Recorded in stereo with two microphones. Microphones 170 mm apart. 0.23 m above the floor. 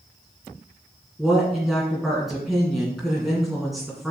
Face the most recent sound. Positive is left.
turn(degrees=0)  # may be behind; listen again after turning